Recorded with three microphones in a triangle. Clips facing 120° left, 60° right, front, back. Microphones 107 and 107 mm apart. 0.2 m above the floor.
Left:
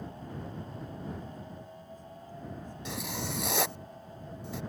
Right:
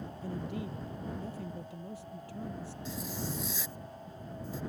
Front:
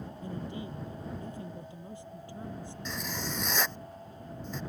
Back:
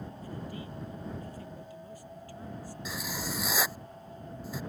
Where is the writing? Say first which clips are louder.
Left 2 dB, even; 95° left.